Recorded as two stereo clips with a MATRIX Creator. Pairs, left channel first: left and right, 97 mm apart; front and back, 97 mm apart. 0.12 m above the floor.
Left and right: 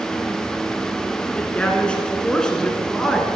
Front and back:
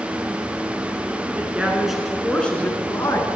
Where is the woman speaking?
140° left, 1.3 m; by 3.3 s 5° left, 1.4 m.